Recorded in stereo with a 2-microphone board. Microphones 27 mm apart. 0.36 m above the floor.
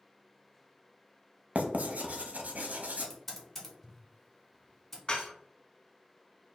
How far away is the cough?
I don't hear a cough.